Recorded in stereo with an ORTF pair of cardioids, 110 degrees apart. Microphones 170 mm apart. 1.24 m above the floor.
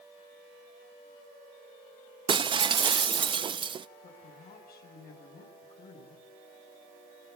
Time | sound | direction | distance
2.3 | breaking glass | 30° right | 0.9 m
4.0 | a woman speaking | 60° left | 8.5 m